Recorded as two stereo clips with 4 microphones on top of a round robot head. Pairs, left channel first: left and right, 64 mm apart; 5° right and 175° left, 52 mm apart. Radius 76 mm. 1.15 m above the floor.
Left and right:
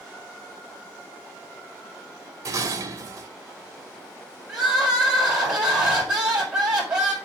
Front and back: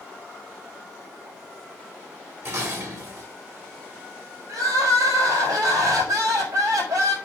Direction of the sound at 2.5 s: 130° right.